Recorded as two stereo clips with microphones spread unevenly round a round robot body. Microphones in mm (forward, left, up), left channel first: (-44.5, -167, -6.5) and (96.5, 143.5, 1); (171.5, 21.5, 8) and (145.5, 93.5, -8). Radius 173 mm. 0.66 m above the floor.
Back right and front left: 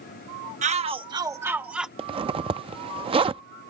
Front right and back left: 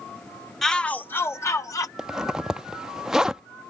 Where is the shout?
50° left; by 1.9 s 25° right.